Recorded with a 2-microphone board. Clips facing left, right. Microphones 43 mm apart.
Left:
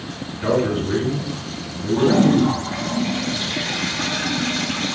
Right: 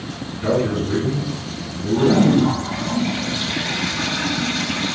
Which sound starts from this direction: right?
A toilet flushing, at 1.9 s.